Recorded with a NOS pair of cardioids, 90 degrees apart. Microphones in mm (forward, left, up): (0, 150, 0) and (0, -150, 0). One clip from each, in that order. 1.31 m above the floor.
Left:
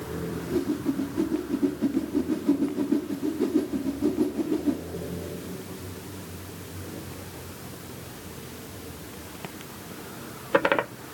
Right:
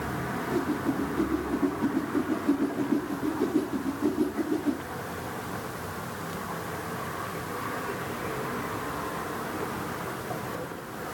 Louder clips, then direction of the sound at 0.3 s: Left 1 dB; 10° left.